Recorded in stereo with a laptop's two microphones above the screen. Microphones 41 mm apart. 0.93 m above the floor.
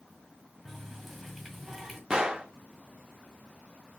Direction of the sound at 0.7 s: 5° left (ahead or behind).